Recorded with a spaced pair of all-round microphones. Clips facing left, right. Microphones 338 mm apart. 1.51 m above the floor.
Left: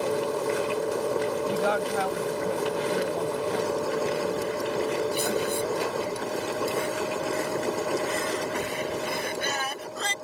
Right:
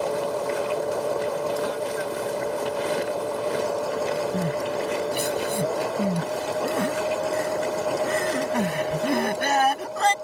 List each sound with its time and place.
0.0 s a machine running: 25° left (ahead or behind)
1.5 s a woman speaking: 85° left
4.3 s crying: 75° right (ahead or behind)